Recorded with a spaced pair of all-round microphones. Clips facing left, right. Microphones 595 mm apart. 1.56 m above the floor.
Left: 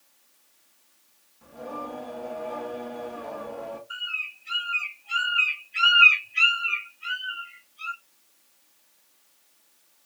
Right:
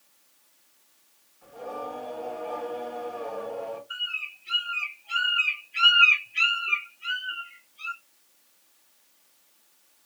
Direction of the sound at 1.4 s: 65° left (ahead or behind).